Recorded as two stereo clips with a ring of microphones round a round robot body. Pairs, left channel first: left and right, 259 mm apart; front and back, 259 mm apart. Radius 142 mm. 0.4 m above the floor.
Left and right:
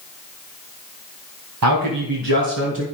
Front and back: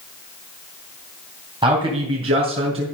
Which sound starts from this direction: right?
A man speaking, at 1.6 s.